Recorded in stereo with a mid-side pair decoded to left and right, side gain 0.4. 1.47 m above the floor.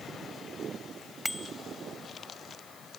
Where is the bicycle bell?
5° left.